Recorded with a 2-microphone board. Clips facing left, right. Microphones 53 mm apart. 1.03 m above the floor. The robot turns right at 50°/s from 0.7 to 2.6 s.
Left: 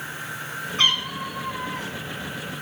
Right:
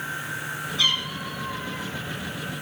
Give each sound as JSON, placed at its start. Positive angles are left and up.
{"t": 0.8, "sound": "a cat meowing", "azimuth_deg": 50, "distance_m": 2.5}